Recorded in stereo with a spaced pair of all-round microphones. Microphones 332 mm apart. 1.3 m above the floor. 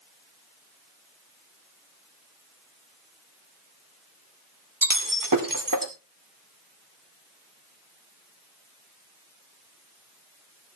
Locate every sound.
4.8 s breaking glass: 75° right (ahead or behind), 2 m